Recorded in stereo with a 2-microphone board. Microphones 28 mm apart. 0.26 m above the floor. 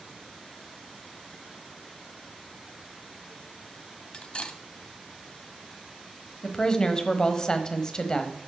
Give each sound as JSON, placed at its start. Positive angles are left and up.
{"t": 4.1, "sound": "cutlery clinking", "side_deg": 40, "distance_m": 0.9}
{"t": 6.4, "sound": "a woman speaking", "side_deg": 30, "distance_m": 1.0}